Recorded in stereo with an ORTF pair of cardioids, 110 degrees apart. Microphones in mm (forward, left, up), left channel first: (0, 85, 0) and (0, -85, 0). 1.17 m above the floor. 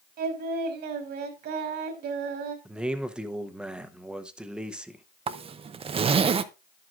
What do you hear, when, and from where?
0.2 s singing: 65° right, 2.5 m
2.6 s a man speaking: 5° right, 0.9 m
5.3 s a zipper: 30° right, 0.6 m